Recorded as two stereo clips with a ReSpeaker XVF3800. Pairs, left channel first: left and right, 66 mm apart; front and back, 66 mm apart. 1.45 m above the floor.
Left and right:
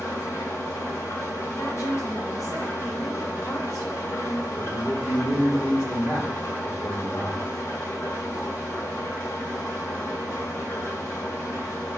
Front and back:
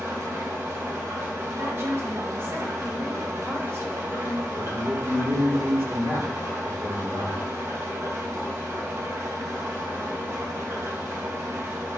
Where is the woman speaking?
125° left, 2.5 m.